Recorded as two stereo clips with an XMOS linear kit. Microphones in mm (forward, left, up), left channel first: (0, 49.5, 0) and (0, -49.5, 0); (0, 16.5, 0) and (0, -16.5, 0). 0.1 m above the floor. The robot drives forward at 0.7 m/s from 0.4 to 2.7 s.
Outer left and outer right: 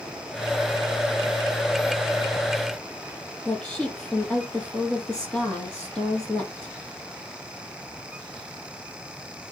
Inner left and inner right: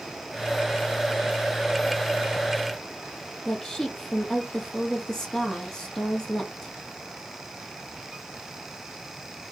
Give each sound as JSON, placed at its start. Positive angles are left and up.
{"t": 3.5, "sound": "a woman speaking", "side_deg": 10, "distance_m": 3.0}